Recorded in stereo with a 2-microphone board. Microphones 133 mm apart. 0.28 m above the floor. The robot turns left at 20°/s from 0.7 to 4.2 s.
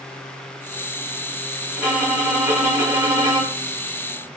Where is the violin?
Straight ahead, 1.2 m; by 3.7 s 40° right, 1.2 m.